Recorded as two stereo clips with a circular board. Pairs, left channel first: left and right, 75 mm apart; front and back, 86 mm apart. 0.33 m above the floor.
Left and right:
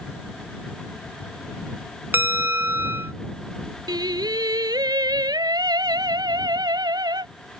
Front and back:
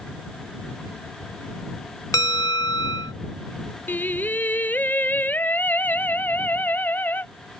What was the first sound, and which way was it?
A bell, 35° right.